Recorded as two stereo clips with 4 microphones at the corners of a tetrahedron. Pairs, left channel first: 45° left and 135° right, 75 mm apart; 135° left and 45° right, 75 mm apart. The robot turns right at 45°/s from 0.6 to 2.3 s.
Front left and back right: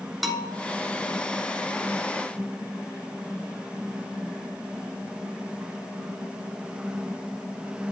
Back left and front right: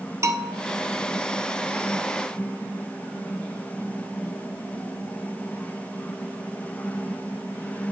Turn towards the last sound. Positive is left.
turn(degrees=30)